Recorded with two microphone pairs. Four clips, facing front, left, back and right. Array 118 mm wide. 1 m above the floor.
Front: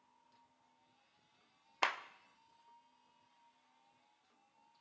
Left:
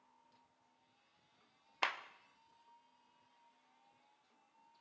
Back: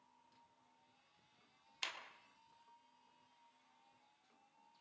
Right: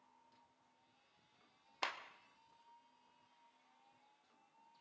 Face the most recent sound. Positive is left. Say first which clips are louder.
# left 4 dB, front 14 dB
turn(degrees=0)